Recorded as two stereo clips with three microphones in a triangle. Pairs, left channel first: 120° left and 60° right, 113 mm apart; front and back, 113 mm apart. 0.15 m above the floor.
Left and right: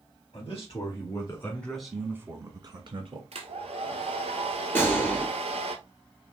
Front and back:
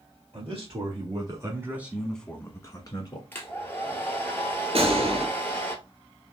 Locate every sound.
0.3 s a man speaking: 155° left, 2 m; by 3.2 s 40° right, 1.9 m
3.3 s a hair dryer: 70° right, 1.2 m
4.8 s a gunshot: 170° right, 1.4 m